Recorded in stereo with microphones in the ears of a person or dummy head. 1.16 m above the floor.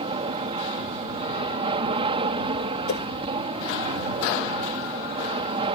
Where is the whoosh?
70° left (ahead or behind).